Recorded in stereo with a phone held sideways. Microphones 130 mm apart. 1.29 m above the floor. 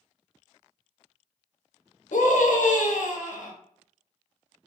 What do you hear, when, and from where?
2.1 s a scream: 75° left (ahead or behind), 0.5 m